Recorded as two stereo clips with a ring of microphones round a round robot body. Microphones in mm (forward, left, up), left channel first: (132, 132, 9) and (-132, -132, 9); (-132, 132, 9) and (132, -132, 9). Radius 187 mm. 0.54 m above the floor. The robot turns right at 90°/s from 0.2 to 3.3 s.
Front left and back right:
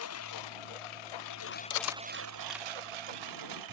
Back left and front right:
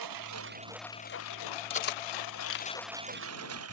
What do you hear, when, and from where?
0.0 s a lawn mower: 10° right; by 3.8 s 100° right
1.7 s cutlery clinking: 65° left; by 2.7 s 155° left